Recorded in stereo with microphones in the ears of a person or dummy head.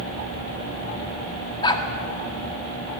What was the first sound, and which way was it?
A dog barking, 30° left (ahead or behind).